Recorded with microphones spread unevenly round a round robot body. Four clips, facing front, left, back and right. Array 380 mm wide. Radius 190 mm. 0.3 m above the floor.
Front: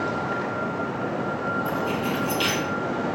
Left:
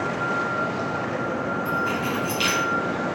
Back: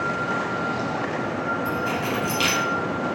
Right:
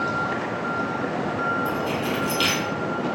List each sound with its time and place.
1.6 s keys jangling: 155° right, 1.8 m